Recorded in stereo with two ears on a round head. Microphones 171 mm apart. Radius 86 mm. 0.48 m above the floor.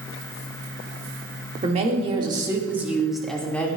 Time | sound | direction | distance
1.6 | a woman speaking | 35° right (ahead or behind) | 1.4 m